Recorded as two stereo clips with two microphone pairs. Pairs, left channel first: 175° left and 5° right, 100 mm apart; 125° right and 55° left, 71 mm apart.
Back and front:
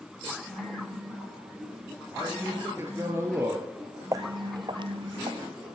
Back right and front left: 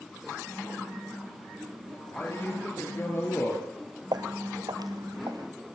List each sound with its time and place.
2.1 s a man speaking: 70° right, 5 m
4.1 s footsteps: 50° left, 0.9 m; by 5.5 s 25° left, 2.5 m